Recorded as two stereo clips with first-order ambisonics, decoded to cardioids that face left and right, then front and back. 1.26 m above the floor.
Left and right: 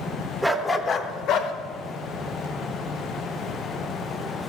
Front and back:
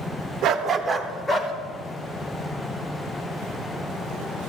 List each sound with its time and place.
0.4 s a dog barking: 175° right, 1.0 m; by 1.5 s 65° left, 1.4 m